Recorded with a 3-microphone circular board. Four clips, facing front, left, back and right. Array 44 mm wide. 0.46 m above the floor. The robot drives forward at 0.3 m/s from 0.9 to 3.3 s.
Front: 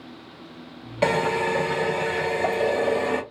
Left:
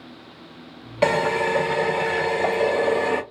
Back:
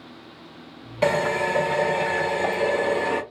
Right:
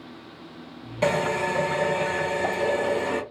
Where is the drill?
70° left, 1.2 m; by 3.2 s 115° left, 1.3 m.